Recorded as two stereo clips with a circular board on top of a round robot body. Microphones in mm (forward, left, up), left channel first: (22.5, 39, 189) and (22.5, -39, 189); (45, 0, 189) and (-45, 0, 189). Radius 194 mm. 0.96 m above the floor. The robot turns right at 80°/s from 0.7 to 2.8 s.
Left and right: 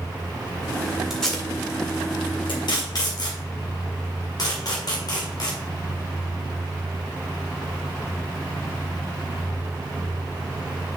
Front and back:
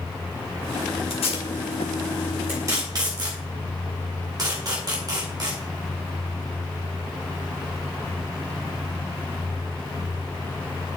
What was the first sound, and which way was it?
Tape being pulled, straight ahead.